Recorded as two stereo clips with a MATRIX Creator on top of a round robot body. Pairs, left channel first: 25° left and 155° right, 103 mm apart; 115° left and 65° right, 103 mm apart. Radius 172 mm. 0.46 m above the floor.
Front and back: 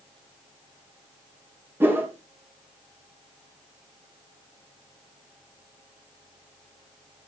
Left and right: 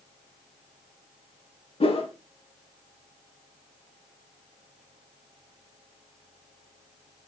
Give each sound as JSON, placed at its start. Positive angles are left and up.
{"t": 1.8, "sound": "a whoosh", "azimuth_deg": 135, "distance_m": 3.5}